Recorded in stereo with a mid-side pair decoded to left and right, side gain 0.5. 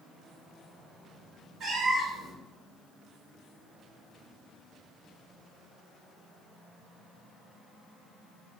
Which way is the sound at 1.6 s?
60° right.